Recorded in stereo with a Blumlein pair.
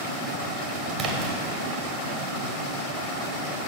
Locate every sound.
1.0 s a splash: 30° right, 1.1 m